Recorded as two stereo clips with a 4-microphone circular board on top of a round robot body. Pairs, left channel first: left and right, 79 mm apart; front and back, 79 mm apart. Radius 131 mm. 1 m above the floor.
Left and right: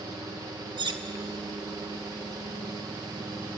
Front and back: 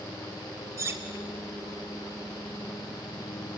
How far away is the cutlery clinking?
About 1.5 m.